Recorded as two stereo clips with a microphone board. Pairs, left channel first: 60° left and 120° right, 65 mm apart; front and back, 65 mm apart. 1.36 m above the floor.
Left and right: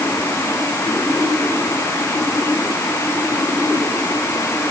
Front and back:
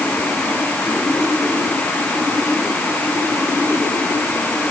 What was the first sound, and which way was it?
Only background noise.